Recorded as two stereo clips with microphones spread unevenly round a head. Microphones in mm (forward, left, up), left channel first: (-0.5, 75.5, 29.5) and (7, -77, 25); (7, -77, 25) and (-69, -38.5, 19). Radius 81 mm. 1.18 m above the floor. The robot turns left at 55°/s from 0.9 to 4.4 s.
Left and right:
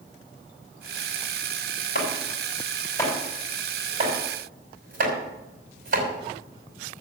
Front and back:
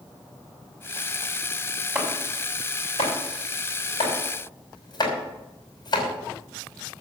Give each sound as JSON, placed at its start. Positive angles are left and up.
{"t": 1.9, "sound": "chopping", "azimuth_deg": 80, "distance_m": 5.0}